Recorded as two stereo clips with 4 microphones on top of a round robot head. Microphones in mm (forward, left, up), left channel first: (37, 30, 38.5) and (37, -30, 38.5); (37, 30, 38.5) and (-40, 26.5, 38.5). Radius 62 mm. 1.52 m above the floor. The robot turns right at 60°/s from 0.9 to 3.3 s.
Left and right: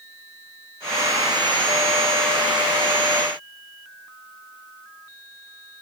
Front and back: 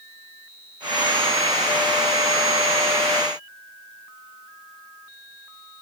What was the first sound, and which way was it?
Only background noise.